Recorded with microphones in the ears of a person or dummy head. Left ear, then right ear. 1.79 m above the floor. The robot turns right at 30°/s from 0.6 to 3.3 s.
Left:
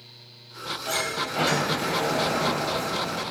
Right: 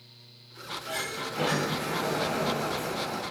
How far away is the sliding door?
About 3.5 m.